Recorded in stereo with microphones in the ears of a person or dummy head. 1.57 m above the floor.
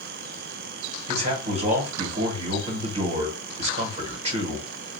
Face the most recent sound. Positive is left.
turn(degrees=-40)  # may be behind; listen again after turning